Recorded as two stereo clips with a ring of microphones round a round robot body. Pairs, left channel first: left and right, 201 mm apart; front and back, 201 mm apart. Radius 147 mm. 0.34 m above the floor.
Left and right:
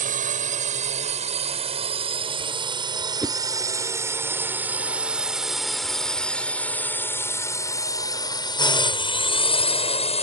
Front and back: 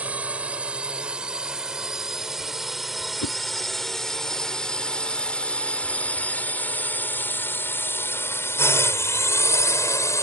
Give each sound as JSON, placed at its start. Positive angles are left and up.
{"t": 0.0, "sound": "a drone", "azimuth_deg": -100}
{"t": 3.2, "sound": "a whoosh", "azimuth_deg": -5}